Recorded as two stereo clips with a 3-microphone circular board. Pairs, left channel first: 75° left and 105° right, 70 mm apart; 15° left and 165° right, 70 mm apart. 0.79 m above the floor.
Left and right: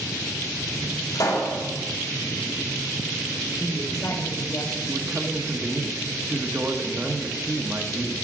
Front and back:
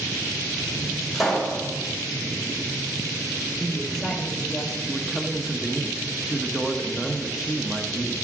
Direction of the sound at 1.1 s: 105° left.